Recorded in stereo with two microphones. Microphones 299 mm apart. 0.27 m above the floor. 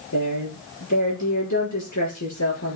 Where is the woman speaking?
75° left (ahead or behind), 5 m.